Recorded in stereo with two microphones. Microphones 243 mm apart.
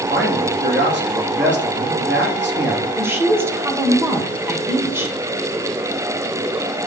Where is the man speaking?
50° right (ahead or behind), 1.8 m.